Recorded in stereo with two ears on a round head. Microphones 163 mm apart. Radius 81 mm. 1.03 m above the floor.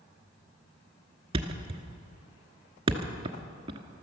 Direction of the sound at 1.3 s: 30° right (ahead or behind).